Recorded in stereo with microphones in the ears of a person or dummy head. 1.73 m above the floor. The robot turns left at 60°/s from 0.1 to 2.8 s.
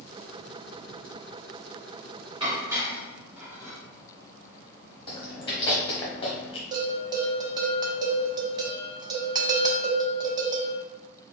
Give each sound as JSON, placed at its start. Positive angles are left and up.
{"t": 2.4, "sound": "dishes clattering", "side_deg": -25, "distance_m": 2.0}
{"t": 5.1, "sound": "chewing", "side_deg": 35, "distance_m": 1.0}
{"t": 6.7, "sound": "a bell", "side_deg": -30, "distance_m": 0.7}